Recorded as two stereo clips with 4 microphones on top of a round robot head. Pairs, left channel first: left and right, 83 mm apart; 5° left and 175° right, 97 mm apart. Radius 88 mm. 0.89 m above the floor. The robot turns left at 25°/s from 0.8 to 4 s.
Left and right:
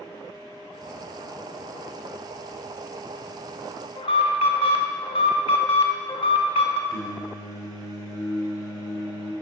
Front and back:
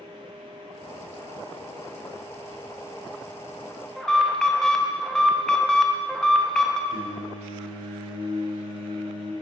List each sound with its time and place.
4.0 s an alarm: 90° left, 0.5 m
6.9 s singing: 45° left, 1.4 m